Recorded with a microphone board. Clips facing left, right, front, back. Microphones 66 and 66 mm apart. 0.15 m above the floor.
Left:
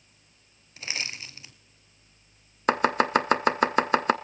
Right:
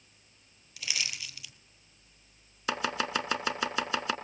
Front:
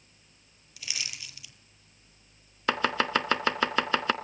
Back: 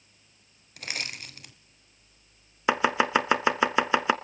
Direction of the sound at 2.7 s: 110° left.